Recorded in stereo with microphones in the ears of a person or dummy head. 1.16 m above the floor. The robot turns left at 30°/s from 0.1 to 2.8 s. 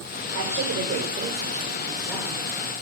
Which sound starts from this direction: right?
A woman speaking, at 0.3 s.